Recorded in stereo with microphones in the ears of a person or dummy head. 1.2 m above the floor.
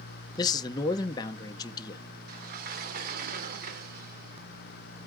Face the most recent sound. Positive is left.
turn(degrees=-55)  # may be behind; listen again after turning